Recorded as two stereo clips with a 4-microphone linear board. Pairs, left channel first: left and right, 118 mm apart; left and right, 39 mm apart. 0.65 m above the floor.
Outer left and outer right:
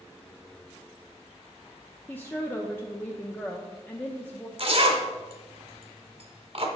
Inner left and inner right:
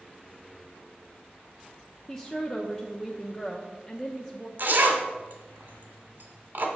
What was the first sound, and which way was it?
A woman speaking, 15° left (ahead or behind).